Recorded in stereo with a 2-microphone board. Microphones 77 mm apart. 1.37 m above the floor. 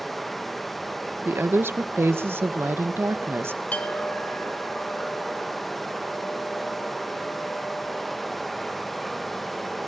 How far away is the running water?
About 0.8 m.